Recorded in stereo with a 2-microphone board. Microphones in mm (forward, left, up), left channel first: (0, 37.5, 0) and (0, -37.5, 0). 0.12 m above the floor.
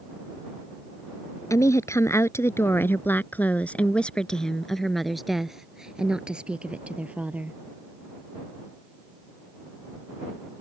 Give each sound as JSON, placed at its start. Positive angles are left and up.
{"t": 1.5, "sound": "a woman speaking", "side_deg": 45}